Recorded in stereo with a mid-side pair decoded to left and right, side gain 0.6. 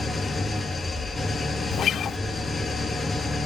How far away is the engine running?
About 5 m.